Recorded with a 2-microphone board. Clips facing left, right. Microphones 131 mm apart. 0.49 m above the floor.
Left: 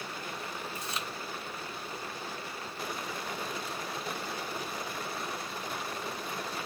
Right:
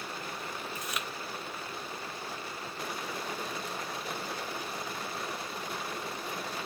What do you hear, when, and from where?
0.8 s chewing: 30° left (ahead or behind), 0.7 m